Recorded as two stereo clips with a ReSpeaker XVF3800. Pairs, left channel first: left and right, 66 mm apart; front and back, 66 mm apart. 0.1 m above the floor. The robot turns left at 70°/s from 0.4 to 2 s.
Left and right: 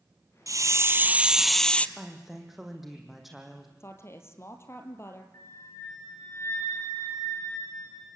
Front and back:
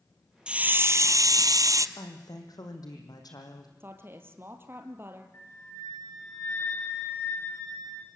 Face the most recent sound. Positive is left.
turn(degrees=55)